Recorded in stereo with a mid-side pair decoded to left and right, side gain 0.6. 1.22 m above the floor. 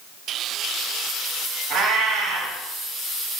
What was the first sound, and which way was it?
A cat meowing, 50° right.